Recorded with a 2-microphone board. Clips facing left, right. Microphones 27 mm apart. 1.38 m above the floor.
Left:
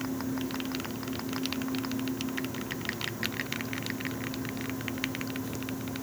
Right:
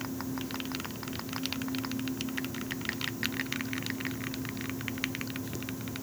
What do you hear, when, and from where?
Only background noise.